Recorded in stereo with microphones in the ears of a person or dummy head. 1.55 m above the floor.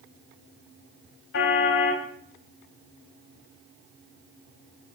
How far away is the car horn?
About 4 m.